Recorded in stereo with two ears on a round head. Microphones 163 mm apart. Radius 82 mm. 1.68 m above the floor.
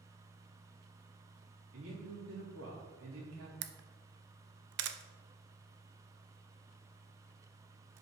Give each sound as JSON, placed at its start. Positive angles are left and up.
{"t": 1.7, "sound": "a man speaking", "side_deg": -85, "distance_m": 3.0}
{"t": 3.6, "sound": "a camera shutter", "side_deg": -65, "distance_m": 0.5}